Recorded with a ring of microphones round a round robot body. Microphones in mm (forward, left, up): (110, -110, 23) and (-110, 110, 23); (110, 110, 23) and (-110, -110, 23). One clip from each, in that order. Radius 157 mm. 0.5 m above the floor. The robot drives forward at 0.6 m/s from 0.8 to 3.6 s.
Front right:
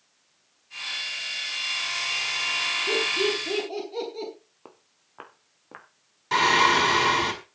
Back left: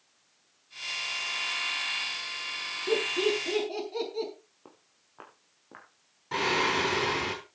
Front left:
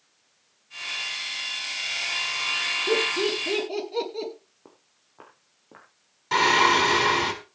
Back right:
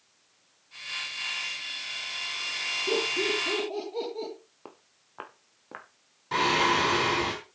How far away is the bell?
No bell in this recording.